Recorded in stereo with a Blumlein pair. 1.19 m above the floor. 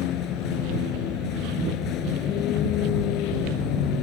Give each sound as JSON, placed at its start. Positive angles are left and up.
{"t": 0.0, "sound": "a vehicle", "azimuth_deg": 35}